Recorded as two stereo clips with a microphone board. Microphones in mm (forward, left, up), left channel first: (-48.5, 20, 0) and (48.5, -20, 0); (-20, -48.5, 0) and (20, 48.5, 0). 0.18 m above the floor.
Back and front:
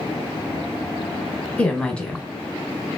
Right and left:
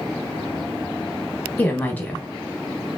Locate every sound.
1.6 s a woman speaking: 145° right, 1.0 m